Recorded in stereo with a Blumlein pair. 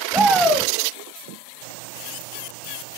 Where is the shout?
10° right, 1.2 m.